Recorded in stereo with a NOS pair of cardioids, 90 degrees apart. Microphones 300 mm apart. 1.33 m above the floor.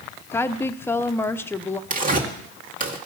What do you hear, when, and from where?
0.3 s a woman speaking: 10° left, 0.6 m
1.9 s tearing paper: 30° right, 2 m